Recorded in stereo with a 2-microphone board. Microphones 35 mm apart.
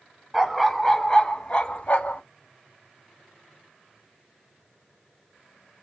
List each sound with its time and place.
0.3 s a dog barking: 5° right (ahead or behind), 1.0 m; by 2.2 s 50° left (ahead or behind), 1.0 m